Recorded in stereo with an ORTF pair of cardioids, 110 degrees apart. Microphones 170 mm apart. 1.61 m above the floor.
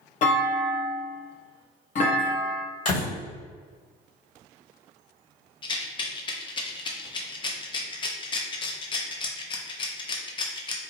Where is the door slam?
55° left, 1.6 m.